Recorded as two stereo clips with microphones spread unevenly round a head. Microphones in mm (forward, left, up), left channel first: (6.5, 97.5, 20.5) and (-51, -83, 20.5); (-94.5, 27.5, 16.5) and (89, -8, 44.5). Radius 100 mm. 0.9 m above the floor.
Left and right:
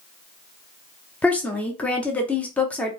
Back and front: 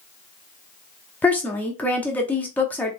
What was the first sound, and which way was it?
A woman speaking, 140° left.